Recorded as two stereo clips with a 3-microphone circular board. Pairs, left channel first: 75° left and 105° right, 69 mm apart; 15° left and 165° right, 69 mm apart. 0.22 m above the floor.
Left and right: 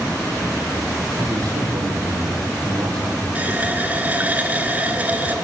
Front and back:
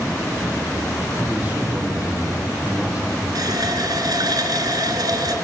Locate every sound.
1.2 s a man speaking: 100° right, 7 m; by 3.2 s 90° right, 7 m
3.4 s a running tap: 170° right, 2 m